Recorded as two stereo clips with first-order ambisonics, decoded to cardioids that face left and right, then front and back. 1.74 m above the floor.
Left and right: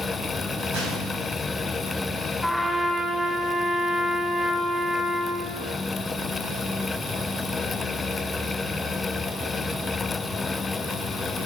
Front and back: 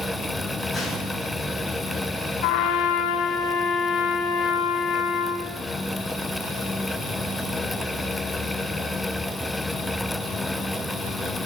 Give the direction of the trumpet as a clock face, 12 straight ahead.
12 o'clock.